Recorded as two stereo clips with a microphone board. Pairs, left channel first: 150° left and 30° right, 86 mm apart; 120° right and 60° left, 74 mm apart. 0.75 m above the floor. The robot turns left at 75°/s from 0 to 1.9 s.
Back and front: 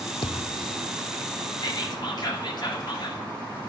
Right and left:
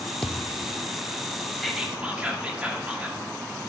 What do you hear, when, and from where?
0.2 s a thud: 160° left, 0.7 m; by 0.7 s 120° left, 0.7 m
1.6 s whispering: 155° left, 2 m; by 3.2 s 135° left, 2 m